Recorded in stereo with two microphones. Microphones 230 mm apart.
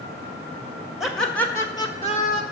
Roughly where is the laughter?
Centre.